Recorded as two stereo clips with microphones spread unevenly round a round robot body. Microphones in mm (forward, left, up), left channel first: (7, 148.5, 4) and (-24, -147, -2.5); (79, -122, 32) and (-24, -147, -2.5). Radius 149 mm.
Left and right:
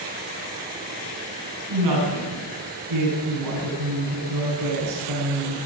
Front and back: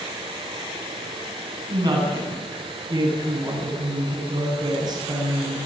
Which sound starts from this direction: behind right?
A woman speaking, at 1.7 s.